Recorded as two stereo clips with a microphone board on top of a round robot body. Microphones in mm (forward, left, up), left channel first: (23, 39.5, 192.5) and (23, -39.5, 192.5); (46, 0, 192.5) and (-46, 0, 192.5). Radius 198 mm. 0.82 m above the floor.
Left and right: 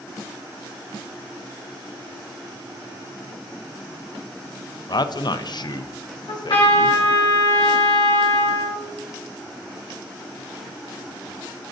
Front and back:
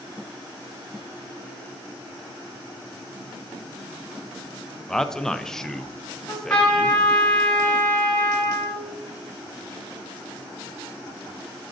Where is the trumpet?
80° left, 1.7 m.